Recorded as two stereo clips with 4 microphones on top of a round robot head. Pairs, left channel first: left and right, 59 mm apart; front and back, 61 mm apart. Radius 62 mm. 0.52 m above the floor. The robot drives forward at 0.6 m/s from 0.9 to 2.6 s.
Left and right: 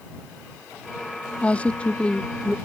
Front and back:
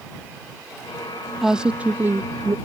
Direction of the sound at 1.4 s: 105° left.